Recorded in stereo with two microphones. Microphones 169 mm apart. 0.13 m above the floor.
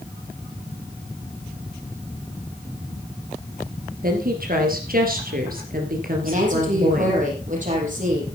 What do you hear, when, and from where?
4.0 s a woman speaking: 60° right (ahead or behind), 2.5 m
6.2 s a woman speaking: 50° right (ahead or behind), 5 m